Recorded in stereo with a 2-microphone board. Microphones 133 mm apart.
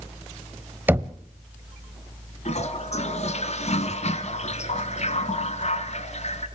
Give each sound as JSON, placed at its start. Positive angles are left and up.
{"t": 0.9, "sound": "knocking", "side_deg": -15, "distance_m": 0.8}
{"t": 2.5, "sound": "a toilet flushing", "side_deg": 55, "distance_m": 1.4}